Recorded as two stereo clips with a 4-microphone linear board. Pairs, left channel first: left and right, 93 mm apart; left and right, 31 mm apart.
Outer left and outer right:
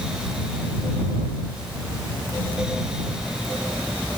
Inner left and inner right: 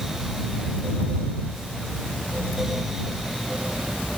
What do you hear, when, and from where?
Only background noise.